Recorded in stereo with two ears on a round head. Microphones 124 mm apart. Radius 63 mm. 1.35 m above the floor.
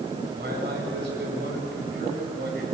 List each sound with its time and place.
0.3 s a man speaking: 85° right, 8.5 m